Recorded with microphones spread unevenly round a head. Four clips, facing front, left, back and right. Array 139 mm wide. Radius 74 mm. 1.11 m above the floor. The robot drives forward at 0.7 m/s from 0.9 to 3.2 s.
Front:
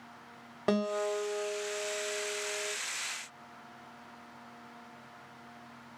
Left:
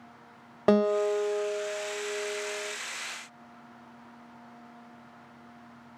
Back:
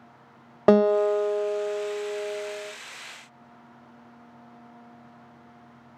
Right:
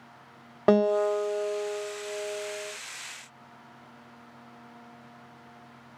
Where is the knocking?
No knocking in this recording.